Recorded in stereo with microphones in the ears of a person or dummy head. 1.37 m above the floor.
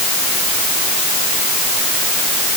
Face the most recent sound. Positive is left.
No sound to turn to.